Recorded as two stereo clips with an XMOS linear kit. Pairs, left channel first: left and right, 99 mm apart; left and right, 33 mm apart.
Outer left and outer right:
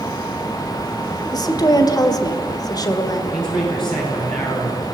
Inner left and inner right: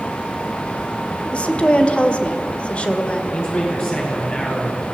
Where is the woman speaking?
40° left (ahead or behind), 1.7 m.